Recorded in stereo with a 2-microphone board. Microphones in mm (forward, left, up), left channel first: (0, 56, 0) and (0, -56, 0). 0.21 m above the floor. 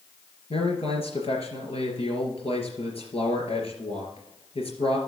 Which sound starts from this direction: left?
A man speaking, at 0.5 s.